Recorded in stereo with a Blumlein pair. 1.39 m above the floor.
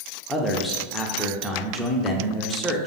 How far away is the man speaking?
About 0.6 m.